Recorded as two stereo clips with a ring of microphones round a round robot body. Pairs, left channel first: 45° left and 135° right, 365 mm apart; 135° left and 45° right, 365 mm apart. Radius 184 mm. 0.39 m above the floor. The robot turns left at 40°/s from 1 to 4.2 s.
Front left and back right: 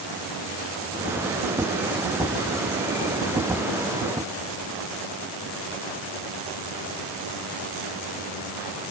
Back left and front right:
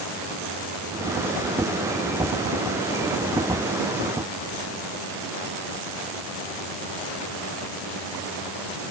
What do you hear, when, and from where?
Only background noise.